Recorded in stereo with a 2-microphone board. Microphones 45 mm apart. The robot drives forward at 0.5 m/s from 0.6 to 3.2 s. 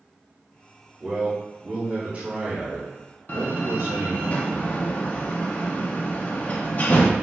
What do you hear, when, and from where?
1.0 s a man speaking: 30° right (ahead or behind), 1.6 m; by 4.3 s 70° right (ahead or behind), 0.9 m
3.3 s a door slam: 40° left (ahead or behind), 0.6 m